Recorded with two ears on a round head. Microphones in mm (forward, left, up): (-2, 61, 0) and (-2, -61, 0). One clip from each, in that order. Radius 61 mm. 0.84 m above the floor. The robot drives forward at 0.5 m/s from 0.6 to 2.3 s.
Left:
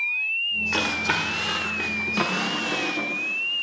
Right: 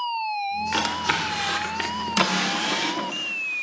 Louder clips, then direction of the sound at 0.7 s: Even; 30° right (ahead or behind).